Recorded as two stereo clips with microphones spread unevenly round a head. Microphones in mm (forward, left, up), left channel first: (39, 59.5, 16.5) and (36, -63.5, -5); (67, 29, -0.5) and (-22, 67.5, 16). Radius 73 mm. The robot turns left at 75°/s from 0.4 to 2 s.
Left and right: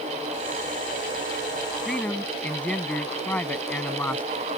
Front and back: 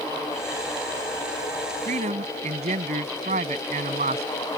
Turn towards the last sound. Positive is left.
turn(degrees=170)